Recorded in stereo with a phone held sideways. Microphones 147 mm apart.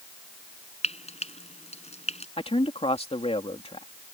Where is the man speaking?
40° left (ahead or behind).